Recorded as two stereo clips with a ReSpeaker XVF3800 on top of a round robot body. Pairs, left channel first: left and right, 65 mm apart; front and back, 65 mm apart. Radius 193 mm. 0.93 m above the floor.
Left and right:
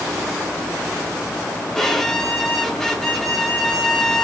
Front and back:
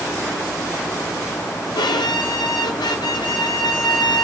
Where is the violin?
5° left, 0.7 m.